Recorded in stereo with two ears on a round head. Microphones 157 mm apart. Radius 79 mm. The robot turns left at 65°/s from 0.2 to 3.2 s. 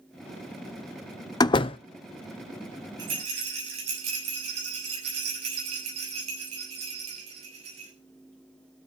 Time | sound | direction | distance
1.4 | a door slam | 25° left (ahead or behind) | 0.5 m
3.0 | a rattle | 25° right (ahead or behind) | 6.5 m